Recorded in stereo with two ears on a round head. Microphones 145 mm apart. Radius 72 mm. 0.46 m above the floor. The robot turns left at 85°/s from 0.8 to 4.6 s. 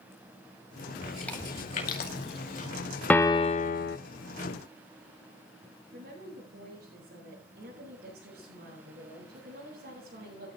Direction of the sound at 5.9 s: 70° right (ahead or behind).